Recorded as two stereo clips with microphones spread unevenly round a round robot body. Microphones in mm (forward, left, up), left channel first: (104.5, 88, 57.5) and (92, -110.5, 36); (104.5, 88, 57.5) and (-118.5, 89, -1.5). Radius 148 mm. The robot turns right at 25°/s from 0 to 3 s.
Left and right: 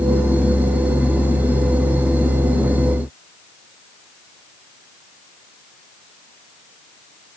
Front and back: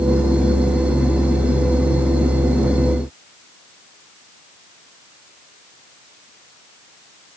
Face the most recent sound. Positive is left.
No sound to turn to.